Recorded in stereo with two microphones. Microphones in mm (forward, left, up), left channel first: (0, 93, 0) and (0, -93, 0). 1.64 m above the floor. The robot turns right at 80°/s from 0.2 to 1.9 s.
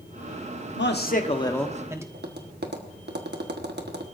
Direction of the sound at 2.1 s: 65° right (ahead or behind).